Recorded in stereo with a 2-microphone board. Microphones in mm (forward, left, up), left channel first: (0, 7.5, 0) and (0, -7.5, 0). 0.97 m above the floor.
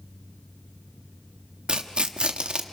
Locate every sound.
1.7 s tearing paper: 85° right, 1.2 m